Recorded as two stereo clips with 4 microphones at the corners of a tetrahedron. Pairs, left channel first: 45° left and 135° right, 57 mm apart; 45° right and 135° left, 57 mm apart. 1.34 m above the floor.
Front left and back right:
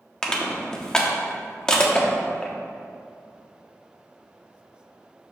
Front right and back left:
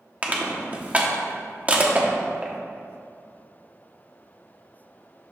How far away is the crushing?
About 0.9 m.